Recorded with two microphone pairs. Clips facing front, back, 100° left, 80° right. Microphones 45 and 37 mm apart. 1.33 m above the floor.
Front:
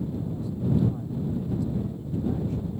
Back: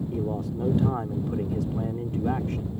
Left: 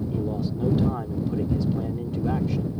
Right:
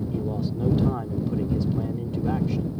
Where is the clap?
I don't hear a clap.